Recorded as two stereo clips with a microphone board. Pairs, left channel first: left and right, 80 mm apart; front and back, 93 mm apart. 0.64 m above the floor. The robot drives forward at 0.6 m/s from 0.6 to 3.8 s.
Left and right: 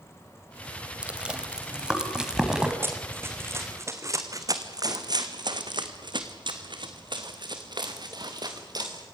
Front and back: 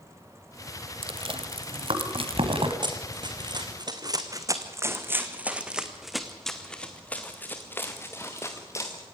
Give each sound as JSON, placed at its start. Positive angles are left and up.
{"t": 1.0, "sound": "chewing", "azimuth_deg": -165, "distance_m": 1.6}
{"t": 2.8, "sound": "running footsteps", "azimuth_deg": -150, "distance_m": 2.0}